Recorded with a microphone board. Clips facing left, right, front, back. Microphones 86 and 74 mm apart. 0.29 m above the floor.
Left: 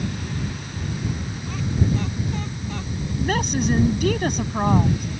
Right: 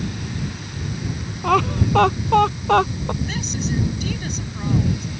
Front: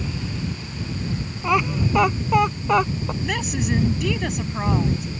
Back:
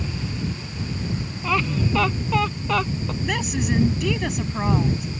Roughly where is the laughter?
Right.